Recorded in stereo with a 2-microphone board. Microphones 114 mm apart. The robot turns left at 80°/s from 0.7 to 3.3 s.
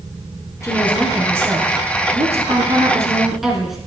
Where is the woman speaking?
30° left, 3 m; by 3.8 s straight behind, 3 m.